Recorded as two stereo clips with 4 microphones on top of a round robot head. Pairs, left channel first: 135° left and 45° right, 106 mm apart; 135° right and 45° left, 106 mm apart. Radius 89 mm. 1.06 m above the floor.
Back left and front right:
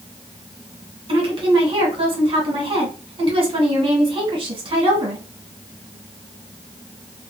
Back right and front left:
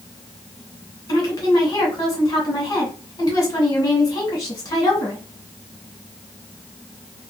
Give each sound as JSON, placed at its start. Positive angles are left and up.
{"t": 1.1, "sound": "a woman speaking", "azimuth_deg": -80, "distance_m": 1.7}